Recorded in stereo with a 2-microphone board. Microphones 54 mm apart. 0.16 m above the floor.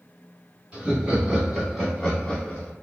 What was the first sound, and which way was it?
Laughter, 20° right (ahead or behind).